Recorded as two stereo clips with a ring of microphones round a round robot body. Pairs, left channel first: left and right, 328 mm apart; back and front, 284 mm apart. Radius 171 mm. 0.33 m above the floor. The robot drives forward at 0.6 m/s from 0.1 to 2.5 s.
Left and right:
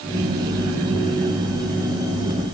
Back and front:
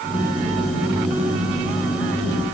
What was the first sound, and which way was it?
Only background noise.